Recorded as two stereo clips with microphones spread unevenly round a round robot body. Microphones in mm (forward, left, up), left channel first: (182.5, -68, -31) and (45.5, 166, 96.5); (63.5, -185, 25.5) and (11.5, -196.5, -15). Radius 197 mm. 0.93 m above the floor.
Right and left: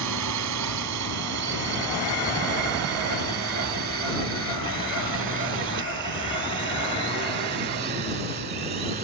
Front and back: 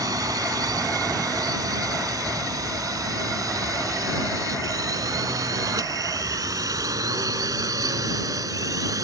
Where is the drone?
170° left; by 9.1 s 170° right.